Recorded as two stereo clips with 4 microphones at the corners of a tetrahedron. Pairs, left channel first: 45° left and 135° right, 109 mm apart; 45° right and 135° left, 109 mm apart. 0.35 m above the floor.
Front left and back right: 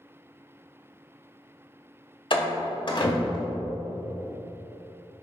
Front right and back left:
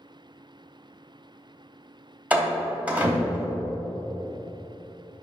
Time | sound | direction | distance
2.3 | a door slam | 60° left | 1.2 m